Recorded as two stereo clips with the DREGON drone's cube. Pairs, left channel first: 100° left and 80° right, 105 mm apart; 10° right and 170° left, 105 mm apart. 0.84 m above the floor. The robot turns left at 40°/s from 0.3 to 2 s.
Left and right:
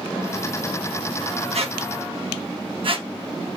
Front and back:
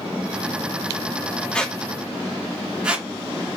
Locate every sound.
1.5 s a squeak: 90° right, 0.8 m; by 3.1 s 110° right, 0.8 m